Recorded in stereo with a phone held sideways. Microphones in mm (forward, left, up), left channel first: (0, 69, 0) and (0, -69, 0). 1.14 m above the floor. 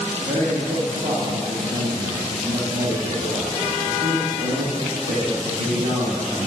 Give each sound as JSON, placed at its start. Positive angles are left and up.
{"t": 0.2, "sound": "a man speaking", "side_deg": -85, "distance_m": 1.5}